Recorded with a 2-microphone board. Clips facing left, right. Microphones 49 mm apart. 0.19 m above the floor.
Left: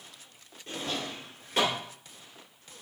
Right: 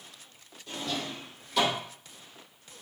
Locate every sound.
0.7 s a drawer: 45° left (ahead or behind), 1.6 m